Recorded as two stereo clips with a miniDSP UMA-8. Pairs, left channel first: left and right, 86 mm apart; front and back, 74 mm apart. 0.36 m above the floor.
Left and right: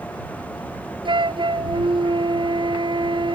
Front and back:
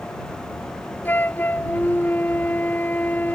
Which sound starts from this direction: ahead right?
A flute, at 1.1 s.